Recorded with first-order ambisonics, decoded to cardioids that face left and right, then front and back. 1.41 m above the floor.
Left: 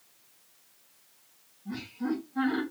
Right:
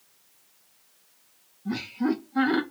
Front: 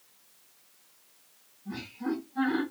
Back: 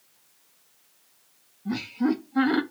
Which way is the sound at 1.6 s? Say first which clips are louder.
Right 6 dB, back 8 dB; 140° right.